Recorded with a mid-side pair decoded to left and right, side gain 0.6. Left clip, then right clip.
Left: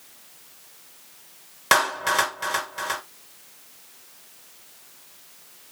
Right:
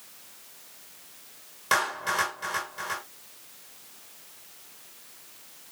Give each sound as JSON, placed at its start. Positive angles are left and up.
{"t": 1.7, "sound": "a clap", "azimuth_deg": 50, "distance_m": 2.5}